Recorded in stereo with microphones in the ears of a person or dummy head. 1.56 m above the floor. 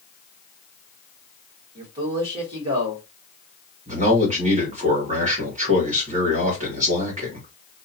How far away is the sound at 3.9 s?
About 1.4 m.